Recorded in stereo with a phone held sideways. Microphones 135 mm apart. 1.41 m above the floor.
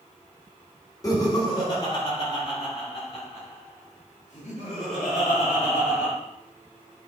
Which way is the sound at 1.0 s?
25° left (ahead or behind).